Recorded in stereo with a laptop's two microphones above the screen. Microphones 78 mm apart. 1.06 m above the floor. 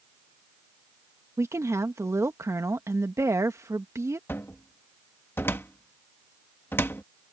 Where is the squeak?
I don't hear a squeak.